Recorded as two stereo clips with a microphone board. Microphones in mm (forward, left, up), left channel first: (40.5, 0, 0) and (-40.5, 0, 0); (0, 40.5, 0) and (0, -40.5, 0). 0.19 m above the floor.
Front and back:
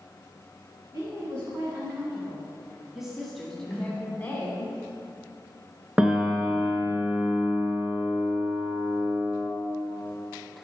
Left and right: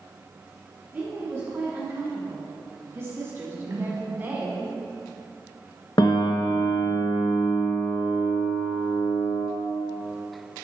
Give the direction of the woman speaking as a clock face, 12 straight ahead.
5 o'clock.